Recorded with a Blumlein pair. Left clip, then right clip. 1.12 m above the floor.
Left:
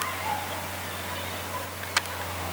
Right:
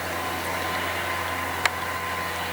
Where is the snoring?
No snoring in this recording.